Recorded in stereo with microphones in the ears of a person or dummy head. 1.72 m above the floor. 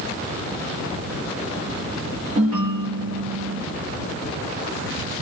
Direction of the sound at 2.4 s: 40° right (ahead or behind).